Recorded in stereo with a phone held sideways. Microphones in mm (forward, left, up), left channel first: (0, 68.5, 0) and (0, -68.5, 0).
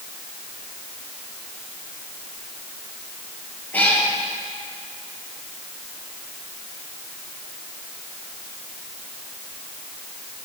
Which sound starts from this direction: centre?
A cat meowing, at 3.7 s.